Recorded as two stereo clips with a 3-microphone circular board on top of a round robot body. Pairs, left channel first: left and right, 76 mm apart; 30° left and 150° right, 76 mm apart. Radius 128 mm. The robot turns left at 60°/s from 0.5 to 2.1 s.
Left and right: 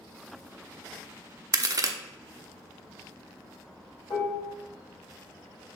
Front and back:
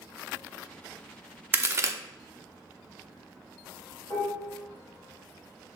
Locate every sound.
1.5 s a crack: 90° right, 0.8 m; by 1.9 s 115° right, 0.8 m
4.1 s dishes clattering: 70° left, 2.5 m